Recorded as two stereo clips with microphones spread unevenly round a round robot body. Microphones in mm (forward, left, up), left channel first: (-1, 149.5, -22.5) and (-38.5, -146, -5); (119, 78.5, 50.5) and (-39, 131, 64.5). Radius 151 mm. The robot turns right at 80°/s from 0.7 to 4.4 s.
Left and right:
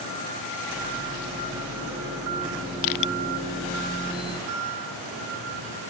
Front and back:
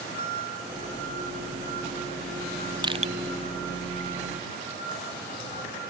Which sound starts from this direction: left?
Crushing, at 2.8 s.